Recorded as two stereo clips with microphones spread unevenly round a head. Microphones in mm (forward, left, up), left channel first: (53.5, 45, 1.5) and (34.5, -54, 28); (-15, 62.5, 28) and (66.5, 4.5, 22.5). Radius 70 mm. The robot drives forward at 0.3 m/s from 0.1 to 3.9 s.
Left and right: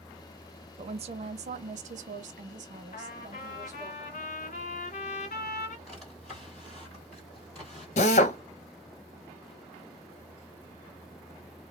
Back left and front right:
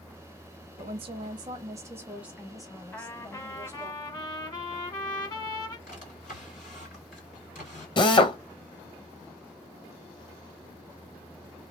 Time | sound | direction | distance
0.8 | a woman speaking | 70° right | 0.6 m
2.9 | a trumpet | 80° left | 0.9 m
5.9 | a drawer | 175° left | 2.0 m
8.0 | a drill | 105° left | 0.6 m